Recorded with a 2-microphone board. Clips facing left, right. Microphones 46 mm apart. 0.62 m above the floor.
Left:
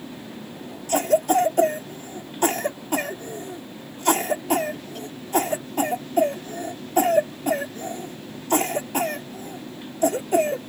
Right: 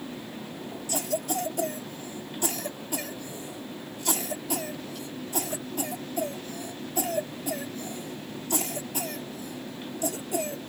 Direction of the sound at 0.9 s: 50° left (ahead or behind).